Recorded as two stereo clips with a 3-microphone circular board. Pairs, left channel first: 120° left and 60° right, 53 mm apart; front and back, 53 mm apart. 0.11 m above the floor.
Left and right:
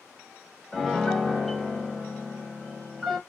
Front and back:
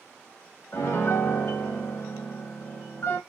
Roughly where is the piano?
Ahead left.